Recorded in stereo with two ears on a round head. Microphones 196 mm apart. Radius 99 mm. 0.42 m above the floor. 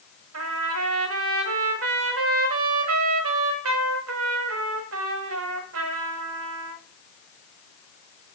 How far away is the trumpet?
About 1.3 m.